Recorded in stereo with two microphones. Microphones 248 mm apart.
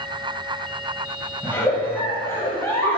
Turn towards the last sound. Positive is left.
turn(degrees=10)  # may be behind; listen again after turning